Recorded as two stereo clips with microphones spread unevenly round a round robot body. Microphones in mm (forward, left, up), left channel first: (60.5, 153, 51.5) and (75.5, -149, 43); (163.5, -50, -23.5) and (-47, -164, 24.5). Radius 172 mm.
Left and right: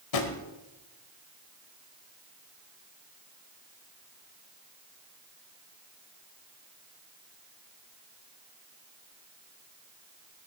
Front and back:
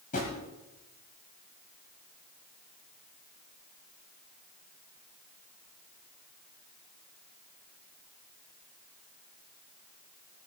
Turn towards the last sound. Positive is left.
turn(degrees=95)